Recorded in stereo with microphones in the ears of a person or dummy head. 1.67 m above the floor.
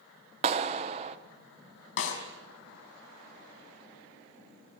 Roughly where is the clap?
Right.